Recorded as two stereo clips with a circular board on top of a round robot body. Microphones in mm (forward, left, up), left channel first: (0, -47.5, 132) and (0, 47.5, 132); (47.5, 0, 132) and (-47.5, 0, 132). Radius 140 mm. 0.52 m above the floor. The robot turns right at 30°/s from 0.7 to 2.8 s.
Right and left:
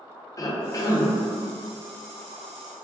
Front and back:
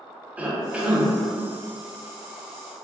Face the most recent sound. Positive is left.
turn(degrees=-45)